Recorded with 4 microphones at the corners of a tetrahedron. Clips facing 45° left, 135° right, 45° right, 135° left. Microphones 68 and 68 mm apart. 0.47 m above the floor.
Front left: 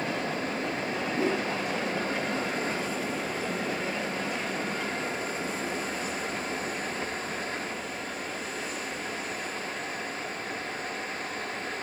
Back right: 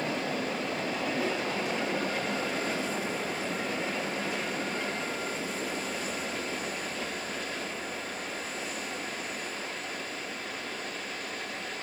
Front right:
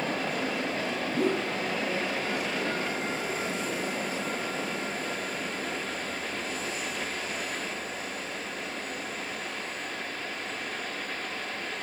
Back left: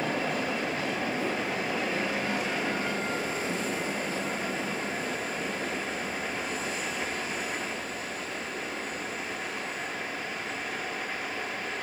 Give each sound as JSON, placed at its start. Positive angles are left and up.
{"t": 1.1, "sound": "a whoosh", "azimuth_deg": -15, "distance_m": 4.0}